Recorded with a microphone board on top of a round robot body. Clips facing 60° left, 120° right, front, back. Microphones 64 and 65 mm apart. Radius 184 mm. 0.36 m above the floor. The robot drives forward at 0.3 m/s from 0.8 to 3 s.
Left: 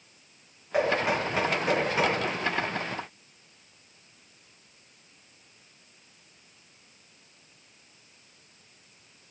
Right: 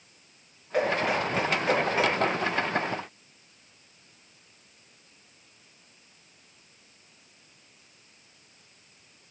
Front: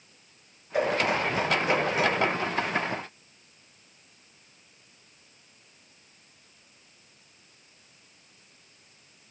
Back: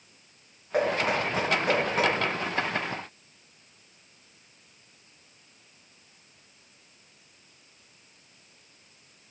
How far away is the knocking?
About 4 m.